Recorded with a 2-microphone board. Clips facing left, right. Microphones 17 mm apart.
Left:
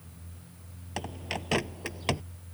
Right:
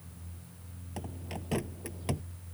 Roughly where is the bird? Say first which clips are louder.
Left 7 dB; left.